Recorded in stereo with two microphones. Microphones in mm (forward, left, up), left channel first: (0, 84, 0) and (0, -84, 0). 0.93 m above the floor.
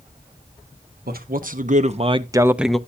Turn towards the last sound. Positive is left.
turn(degrees=5)  # may be behind; listen again after turning